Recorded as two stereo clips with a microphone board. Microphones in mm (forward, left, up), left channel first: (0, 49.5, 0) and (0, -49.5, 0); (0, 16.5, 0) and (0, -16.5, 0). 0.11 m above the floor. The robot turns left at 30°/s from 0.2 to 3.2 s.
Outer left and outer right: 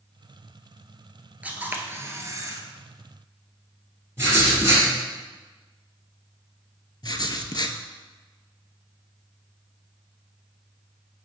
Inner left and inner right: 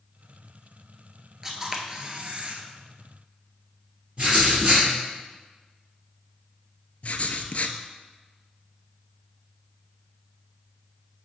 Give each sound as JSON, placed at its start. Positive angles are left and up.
{"t": 1.4, "sound": "a camera shutter", "azimuth_deg": -20, "distance_m": 0.9}
{"t": 4.2, "sound": "writing", "side_deg": -30, "distance_m": 2.5}
{"t": 7.0, "sound": "writing", "side_deg": 50, "distance_m": 0.5}